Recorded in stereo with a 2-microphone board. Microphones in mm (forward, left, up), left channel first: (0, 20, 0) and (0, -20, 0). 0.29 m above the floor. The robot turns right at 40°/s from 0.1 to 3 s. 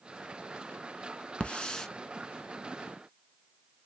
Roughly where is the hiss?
Left.